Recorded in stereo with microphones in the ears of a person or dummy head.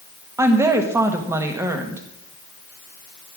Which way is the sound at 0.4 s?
15° right (ahead or behind).